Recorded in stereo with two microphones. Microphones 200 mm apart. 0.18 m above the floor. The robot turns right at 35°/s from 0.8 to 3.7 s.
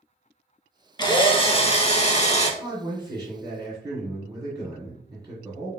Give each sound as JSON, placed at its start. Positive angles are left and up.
{"t": 1.0, "sound": "a drill", "azimuth_deg": 45, "distance_m": 0.5}
{"t": 2.6, "sound": "a man speaking", "side_deg": -25, "distance_m": 1.6}